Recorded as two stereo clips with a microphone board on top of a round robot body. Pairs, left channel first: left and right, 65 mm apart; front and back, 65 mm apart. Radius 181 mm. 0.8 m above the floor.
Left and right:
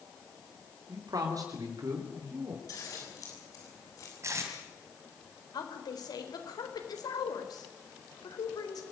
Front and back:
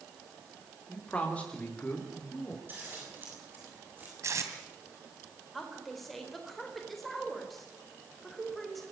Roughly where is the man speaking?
Right.